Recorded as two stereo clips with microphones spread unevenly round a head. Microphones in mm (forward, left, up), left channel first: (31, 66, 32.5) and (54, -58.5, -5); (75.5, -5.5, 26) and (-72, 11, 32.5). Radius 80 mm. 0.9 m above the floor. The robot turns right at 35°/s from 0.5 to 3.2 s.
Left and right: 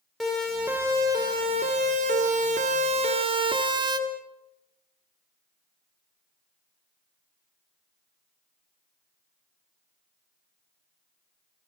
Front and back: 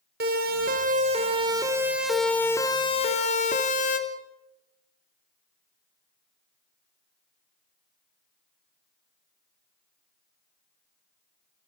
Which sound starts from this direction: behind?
A siren, at 0.2 s.